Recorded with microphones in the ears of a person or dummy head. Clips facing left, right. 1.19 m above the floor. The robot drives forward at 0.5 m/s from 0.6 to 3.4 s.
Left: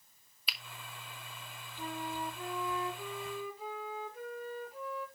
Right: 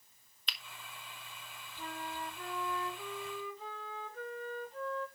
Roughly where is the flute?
Centre.